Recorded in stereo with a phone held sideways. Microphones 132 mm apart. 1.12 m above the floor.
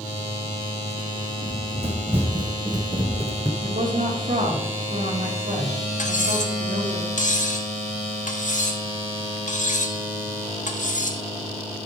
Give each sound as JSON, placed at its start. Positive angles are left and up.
{"t": 1.4, "sound": "running footsteps", "side_deg": -50, "distance_m": 1.9}
{"t": 3.6, "sound": "a woman speaking", "side_deg": -80, "distance_m": 1.7}
{"t": 6.0, "sound": "cutlery clinking", "side_deg": 75, "distance_m": 1.0}